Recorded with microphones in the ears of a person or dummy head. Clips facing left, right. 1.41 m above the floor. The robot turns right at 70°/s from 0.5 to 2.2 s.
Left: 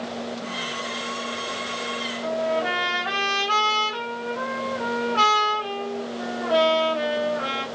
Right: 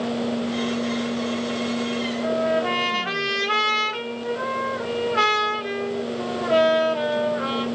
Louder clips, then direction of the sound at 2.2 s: Right 1 dB; 25° right (ahead or behind).